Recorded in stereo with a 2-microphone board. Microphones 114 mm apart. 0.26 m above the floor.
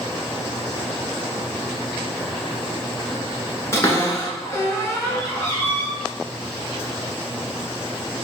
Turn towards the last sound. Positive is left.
turn(degrees=30)  # may be behind; listen again after turning